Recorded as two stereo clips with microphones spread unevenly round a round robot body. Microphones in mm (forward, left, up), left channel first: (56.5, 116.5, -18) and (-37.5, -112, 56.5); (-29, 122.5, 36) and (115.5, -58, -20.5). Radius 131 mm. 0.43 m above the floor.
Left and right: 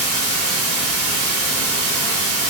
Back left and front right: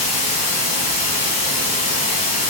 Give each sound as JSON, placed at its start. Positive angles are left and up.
{"t": 0.0, "sound": "running water", "azimuth_deg": -165, "distance_m": 2.5}